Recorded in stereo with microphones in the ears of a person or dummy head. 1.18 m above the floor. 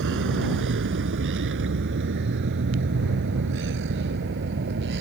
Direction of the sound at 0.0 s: 75° right (ahead or behind).